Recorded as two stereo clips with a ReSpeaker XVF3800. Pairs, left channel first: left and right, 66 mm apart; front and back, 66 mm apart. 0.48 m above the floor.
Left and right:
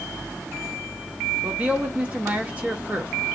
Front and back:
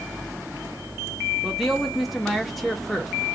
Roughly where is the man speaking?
Right.